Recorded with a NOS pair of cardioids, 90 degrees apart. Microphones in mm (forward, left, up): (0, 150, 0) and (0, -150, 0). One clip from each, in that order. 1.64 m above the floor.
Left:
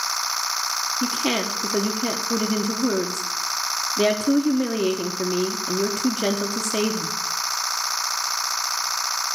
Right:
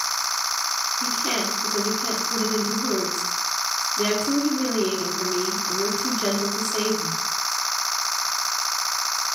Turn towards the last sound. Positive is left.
turn(degrees=50)